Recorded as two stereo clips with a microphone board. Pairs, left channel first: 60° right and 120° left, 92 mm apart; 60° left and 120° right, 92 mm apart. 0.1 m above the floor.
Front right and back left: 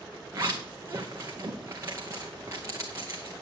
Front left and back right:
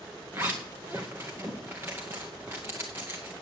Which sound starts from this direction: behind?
A zipper, at 0.3 s.